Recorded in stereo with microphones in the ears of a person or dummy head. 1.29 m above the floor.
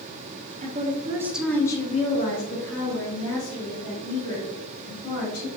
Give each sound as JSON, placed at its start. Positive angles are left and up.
{"t": 0.6, "sound": "a woman speaking", "side_deg": -45, "distance_m": 0.7}